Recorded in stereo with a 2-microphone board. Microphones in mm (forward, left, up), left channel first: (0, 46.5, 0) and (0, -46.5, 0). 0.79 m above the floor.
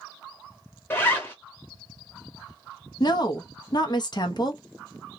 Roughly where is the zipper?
Left.